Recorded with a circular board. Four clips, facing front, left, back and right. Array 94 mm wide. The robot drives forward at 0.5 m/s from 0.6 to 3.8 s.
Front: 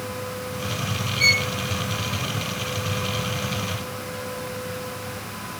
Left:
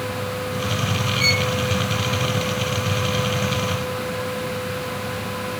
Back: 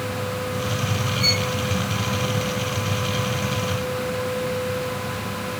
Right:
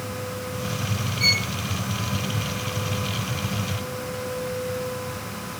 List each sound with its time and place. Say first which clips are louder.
1.2 s a violin: left 6 dB, even; 20° left, 1.4 m; by 1.5 s 25° left, 1.3 m